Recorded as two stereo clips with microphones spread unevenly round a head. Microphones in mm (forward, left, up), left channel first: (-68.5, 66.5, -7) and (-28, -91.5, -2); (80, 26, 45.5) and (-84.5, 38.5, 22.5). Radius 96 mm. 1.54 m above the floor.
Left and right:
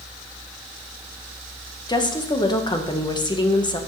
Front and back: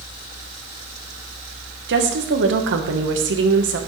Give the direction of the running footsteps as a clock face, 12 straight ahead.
No running footsteps in this recording.